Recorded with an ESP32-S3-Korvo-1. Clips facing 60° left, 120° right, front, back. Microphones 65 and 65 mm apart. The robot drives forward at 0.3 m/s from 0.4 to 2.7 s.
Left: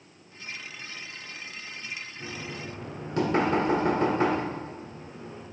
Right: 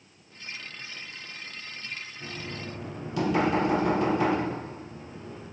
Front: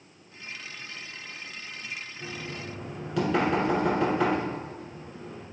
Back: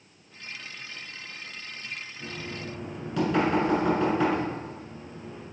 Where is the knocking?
80° left, 1.3 m; by 5.4 s 90° left, 1.3 m.